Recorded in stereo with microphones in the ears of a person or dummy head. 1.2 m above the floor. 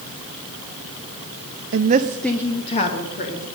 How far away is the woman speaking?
About 0.7 m.